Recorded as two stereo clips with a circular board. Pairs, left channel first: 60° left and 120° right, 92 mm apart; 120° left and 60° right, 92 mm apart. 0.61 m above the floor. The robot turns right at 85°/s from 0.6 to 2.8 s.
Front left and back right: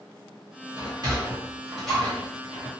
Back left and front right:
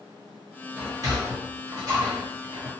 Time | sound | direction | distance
0.8 | a sliding door | 125° right | 1.7 m